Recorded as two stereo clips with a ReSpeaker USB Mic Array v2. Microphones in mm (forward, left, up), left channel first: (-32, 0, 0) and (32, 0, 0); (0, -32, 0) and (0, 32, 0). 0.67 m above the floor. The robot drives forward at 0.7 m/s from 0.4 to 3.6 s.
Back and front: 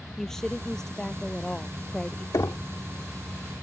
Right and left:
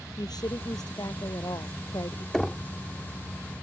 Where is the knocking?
170° right; by 2.7 s 175° right.